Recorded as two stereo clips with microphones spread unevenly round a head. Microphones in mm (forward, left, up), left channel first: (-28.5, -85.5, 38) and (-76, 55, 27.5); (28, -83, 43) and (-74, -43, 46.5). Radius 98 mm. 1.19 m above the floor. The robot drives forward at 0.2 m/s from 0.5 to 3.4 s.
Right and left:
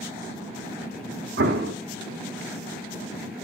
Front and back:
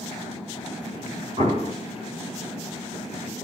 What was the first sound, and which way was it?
An explosion, 95° left.